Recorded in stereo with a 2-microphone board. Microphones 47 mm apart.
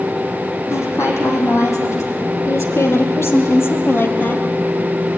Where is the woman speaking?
70° left (ahead or behind), 6 m; by 4.5 s 45° left (ahead or behind), 3 m.